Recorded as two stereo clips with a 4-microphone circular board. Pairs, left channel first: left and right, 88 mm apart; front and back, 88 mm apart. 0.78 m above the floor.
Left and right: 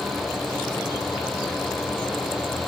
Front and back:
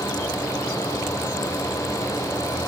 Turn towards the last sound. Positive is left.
No sound to turn to.